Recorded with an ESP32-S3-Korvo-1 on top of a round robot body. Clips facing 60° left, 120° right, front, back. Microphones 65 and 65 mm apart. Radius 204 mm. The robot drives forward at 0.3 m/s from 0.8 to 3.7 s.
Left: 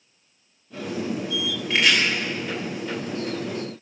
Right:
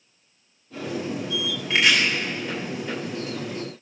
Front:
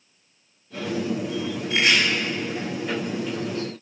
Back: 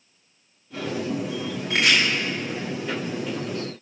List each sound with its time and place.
1.7 s chopping: 150° left, 5.5 m